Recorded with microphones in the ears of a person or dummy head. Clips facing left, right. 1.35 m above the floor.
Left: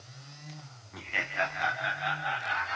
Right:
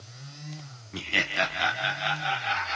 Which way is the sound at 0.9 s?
35° right (ahead or behind).